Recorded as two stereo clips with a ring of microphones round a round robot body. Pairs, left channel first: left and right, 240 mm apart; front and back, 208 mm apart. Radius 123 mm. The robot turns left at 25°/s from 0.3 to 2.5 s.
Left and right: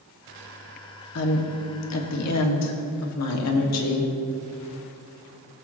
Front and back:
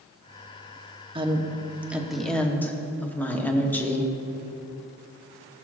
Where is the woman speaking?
115° left, 1.2 m; by 4.1 s 80° left, 1.2 m.